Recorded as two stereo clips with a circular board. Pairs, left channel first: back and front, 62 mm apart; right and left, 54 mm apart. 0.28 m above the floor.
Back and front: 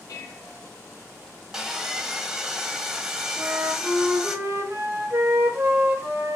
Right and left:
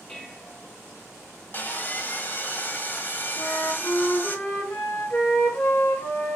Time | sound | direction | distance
0.1 | dishes clattering | 155° right | 3.5 m
1.5 | sawing | 75° right | 1.3 m
3.4 | a flute | 45° right | 5 m